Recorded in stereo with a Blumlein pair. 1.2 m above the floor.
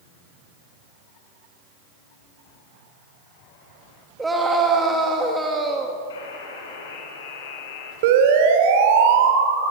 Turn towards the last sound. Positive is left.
turn(degrees=-50)